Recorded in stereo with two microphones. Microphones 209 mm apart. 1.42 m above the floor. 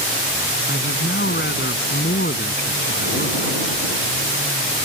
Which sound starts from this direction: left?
A man speaking, at 0.7 s.